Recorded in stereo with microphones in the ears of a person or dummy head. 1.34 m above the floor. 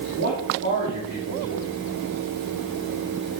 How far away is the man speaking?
About 3 m.